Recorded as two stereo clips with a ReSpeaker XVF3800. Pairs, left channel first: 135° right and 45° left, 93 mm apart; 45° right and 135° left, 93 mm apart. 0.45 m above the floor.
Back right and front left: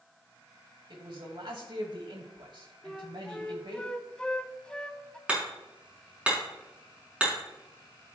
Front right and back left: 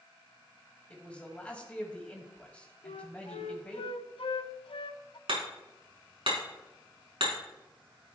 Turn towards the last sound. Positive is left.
turn(degrees=120)